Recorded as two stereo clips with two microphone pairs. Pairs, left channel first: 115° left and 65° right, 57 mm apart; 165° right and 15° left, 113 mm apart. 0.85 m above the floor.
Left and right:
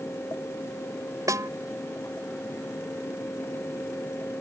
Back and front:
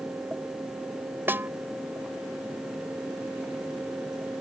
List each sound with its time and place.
1.3 s a snare drum: 55° right